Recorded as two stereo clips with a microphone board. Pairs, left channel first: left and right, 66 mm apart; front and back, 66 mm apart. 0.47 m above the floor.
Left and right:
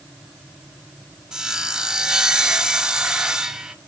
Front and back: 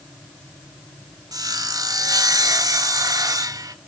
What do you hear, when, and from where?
1.3 s sawing: 170° right, 0.6 m